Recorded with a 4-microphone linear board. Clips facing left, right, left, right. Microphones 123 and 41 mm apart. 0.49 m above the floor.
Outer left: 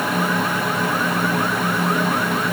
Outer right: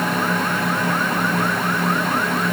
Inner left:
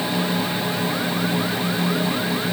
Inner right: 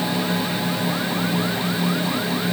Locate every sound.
Only background noise.